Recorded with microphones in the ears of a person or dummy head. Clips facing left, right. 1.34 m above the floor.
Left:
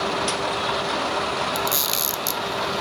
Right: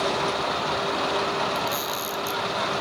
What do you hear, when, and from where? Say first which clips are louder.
1.6 s a camera shutter: left 1 dB; 30° left (ahead or behind), 0.6 m